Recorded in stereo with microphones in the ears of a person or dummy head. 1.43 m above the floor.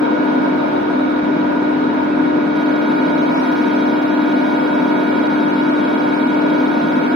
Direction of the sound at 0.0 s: 10° left (ahead or behind).